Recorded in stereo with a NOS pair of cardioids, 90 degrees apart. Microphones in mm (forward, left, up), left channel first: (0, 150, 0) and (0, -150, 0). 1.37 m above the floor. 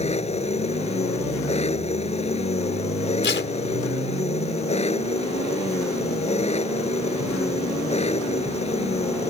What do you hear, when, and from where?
0.0 s an engine running: 20° left
3.2 s tape being pulled: 40° left